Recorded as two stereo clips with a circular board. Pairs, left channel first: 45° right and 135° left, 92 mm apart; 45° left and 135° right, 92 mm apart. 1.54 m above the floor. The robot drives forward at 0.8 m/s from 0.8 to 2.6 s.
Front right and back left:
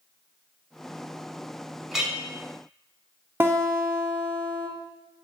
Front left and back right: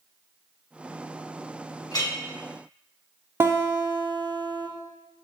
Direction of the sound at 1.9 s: 45° left.